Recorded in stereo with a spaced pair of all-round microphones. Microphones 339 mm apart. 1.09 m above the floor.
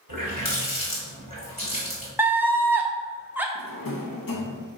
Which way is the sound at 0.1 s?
75° left (ahead or behind).